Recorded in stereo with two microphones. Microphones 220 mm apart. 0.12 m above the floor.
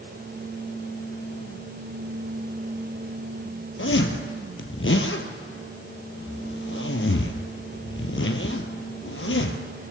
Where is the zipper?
65° left (ahead or behind), 1.1 m.